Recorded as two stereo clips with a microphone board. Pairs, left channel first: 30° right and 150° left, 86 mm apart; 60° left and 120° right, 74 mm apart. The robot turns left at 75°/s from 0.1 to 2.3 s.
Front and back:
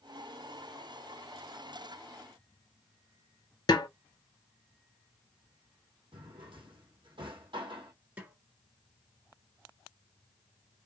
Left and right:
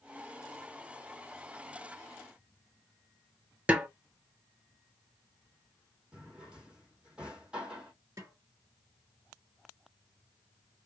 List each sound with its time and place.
3.7 s a snare drum: 55° right, 0.7 m
6.1 s a drawer: 165° left, 1.4 m
8.2 s a snare drum: 150° right, 1.4 m